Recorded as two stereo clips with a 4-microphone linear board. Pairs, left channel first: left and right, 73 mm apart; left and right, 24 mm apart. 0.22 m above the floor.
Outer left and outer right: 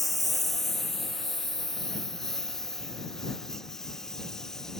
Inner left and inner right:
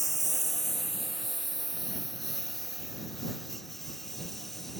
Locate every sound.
0.0 s a lawn mower: centre (ahead or behind); by 4.8 s 5° left (ahead or behind)